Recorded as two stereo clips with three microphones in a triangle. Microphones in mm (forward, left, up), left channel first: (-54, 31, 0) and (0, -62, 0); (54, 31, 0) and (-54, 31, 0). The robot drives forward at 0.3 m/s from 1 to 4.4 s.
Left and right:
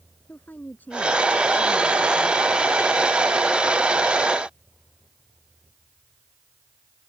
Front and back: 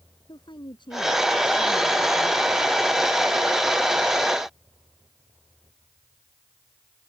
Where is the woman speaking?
45° left; by 2.5 s 50° left.